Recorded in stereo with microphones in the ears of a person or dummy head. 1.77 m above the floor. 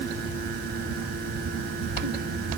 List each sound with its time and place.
Only background noise.